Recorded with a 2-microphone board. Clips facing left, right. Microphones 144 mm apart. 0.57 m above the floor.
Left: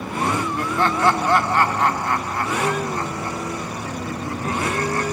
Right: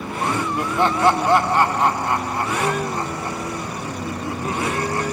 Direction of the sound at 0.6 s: 20° right (ahead or behind).